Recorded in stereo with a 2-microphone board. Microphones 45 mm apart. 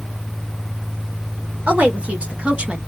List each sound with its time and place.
1.7 s a woman speaking: 35° right (ahead or behind), 1.7 m; by 2.8 s 25° right (ahead or behind), 0.9 m